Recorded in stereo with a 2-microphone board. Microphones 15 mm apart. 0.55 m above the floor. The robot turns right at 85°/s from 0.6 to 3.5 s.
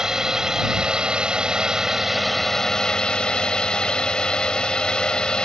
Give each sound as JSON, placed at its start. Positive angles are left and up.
{"t": 0.0, "sound": "a drone", "azimuth_deg": -145}